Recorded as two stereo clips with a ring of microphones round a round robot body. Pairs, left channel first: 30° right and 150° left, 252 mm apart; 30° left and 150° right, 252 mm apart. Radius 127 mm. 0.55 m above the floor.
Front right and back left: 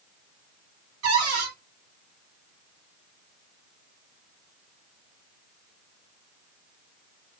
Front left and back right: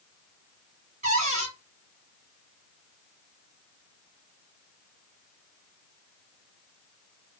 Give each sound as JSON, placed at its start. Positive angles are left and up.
{"t": 1.0, "sound": "a cupboard door", "azimuth_deg": 155, "distance_m": 1.9}